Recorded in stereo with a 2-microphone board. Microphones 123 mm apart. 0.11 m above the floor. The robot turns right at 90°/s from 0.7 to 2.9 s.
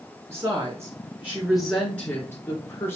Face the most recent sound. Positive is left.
turn(degrees=20)  # may be behind; listen again after turning